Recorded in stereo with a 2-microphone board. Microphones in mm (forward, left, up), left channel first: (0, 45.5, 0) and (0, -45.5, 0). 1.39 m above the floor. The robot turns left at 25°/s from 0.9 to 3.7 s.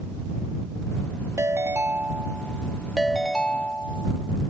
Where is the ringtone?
140° right; by 4.5 s 160° left.